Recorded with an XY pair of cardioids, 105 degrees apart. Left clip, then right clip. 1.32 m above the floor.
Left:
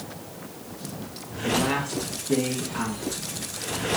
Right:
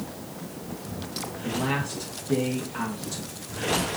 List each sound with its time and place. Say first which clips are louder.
1.4 s a man speaking: left 4 dB; 10° left, 1.4 m